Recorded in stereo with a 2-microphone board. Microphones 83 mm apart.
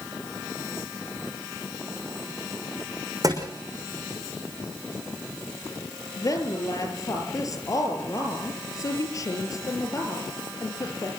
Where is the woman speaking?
45° left (ahead or behind), 5 m.